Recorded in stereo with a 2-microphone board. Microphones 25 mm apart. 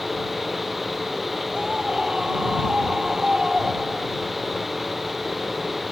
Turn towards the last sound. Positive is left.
turn(degrees=-30)  # may be behind; listen again after turning